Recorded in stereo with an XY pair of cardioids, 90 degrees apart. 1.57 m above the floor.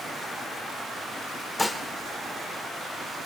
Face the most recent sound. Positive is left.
turn(degrees=15)